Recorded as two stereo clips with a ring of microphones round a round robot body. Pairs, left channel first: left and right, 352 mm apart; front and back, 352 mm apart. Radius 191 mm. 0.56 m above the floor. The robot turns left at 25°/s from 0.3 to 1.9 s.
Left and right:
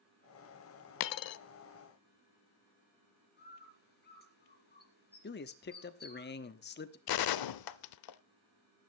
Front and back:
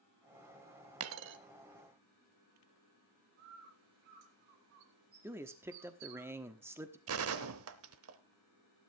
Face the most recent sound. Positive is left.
turn(degrees=120)